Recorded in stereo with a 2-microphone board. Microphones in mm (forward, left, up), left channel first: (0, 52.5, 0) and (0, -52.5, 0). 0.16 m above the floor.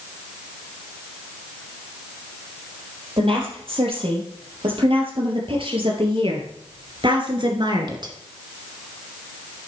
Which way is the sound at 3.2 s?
65° right (ahead or behind).